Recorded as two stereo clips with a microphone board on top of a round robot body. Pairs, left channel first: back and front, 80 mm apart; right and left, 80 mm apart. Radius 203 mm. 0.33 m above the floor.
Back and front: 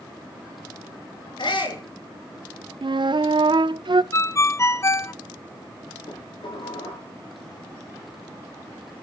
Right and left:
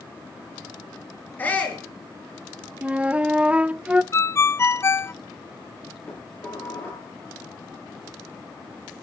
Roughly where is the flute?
Ahead.